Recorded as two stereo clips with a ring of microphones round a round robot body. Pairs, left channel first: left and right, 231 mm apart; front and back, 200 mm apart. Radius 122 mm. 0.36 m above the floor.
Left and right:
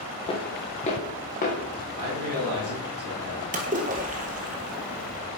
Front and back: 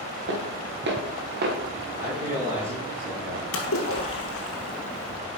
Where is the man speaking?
100° right, 4.5 m.